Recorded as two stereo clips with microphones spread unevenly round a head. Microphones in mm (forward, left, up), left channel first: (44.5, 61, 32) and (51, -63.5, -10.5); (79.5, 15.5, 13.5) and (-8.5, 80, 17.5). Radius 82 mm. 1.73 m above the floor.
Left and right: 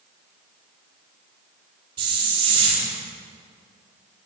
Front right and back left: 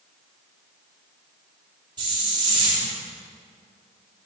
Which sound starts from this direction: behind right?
A hiss, at 2.0 s.